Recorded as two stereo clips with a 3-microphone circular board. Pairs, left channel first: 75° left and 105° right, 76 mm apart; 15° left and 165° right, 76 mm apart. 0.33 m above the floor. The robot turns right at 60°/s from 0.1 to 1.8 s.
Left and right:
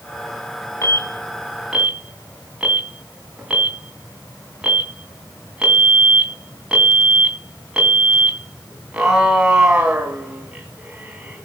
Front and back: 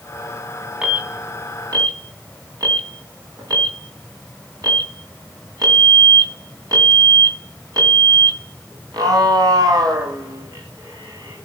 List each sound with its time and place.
0.8 s an alarm: 120° left, 2.5 m; by 11.5 s straight behind, 2.5 m